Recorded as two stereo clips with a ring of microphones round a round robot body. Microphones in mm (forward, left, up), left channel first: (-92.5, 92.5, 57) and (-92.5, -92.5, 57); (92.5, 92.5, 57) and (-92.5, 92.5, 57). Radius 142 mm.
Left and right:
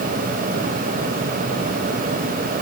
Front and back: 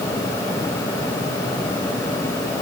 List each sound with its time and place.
Only background noise.